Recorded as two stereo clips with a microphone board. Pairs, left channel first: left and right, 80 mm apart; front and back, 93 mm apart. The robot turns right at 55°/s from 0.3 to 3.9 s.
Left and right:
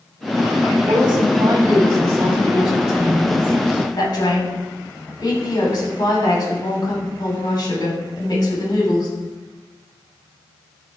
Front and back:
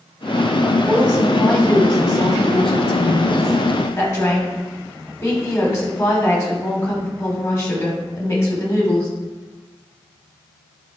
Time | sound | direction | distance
0.9 | a woman speaking | 115° right | 2.5 m